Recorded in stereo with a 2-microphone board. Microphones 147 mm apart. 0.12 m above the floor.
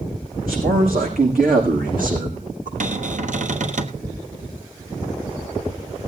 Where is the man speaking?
80° right, 8.5 m; by 2.7 s 65° right (ahead or behind), 7 m.